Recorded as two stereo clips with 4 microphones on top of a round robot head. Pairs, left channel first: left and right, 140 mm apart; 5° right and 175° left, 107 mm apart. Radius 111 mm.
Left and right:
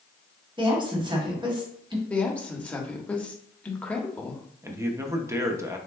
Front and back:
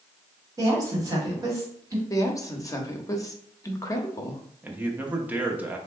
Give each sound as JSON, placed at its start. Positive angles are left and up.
{"t": 0.6, "sound": "a woman speaking", "azimuth_deg": -135, "distance_m": 1.6}
{"t": 2.1, "sound": "a woman speaking", "azimuth_deg": 15, "distance_m": 0.9}
{"t": 4.6, "sound": "a man speaking", "azimuth_deg": -130, "distance_m": 0.8}